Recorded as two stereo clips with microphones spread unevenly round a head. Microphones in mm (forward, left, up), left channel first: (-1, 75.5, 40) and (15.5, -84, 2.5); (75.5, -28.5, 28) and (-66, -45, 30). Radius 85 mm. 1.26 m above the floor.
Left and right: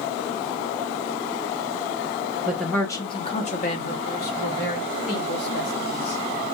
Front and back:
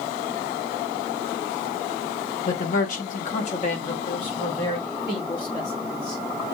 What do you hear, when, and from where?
2.5 s a man speaking: 10° right, 0.9 m; by 6.2 s 75° left, 3.5 m